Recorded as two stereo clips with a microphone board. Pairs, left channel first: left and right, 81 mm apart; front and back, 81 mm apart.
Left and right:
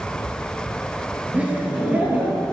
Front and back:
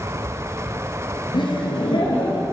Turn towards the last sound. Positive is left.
turn(degrees=-15)